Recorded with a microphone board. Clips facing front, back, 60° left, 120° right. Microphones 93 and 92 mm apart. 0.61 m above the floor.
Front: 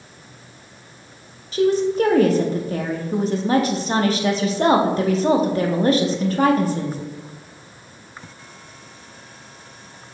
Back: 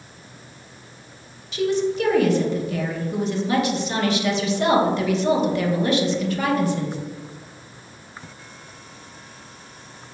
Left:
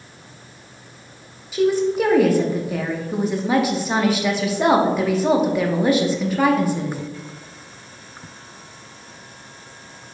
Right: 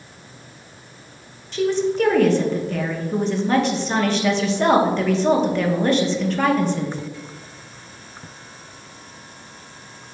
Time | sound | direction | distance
1.5 | a woman speaking | 15° right | 0.6 m